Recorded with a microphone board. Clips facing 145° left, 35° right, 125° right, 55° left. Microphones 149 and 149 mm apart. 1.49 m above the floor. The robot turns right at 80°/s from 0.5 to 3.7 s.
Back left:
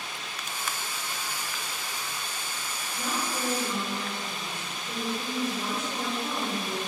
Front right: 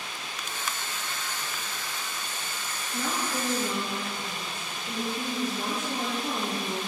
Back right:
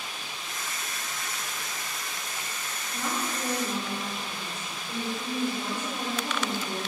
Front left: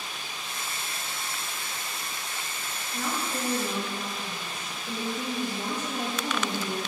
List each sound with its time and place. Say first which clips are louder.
2.9 s a woman speaking: front right 2 dB, front left 1 dB; 40° right, 1.9 m; by 6.8 s 25° left, 1.9 m